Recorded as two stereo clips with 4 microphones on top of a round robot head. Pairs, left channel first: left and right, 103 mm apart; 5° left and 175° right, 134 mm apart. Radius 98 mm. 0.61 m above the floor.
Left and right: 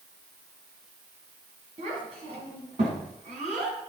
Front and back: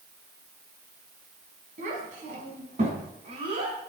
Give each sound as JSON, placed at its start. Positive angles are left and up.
{"t": 1.8, "sound": "a child speaking", "azimuth_deg": -135, "distance_m": 3.5}